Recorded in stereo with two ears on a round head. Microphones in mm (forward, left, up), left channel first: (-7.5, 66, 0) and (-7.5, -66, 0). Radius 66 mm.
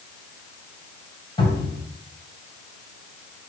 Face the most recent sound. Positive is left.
turn(degrees=35)  # may be behind; listen again after turning